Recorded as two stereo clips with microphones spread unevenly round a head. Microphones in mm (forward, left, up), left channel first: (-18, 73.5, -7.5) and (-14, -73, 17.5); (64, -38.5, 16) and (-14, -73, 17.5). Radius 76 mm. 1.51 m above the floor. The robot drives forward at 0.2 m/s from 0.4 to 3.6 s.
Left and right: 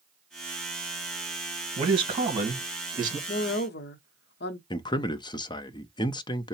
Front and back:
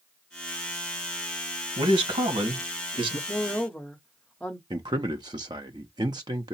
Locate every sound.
1.8 s a man speaking: 145° right, 1.4 m; by 3.2 s 150° right, 1.7 m
3.3 s a woman speaking: 100° left, 0.7 m; by 4.6 s 105° left, 0.7 m
4.7 s a man speaking: 155° left, 0.5 m